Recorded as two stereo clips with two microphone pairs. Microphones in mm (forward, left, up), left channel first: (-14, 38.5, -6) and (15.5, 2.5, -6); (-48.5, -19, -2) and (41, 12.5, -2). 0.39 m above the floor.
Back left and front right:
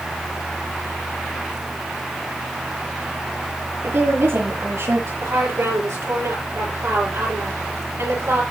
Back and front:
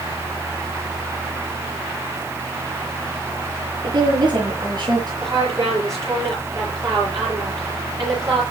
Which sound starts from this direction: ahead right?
A woman speaking, at 5.2 s.